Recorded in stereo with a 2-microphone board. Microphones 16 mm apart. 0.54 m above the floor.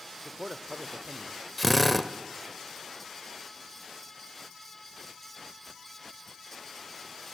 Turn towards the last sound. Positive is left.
turn(degrees=5)  # may be behind; listen again after turning